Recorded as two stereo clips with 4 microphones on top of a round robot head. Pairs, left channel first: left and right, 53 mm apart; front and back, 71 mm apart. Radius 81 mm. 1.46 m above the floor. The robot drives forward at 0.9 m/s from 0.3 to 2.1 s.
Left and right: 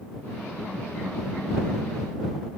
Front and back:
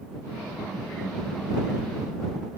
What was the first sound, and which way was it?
Only background noise.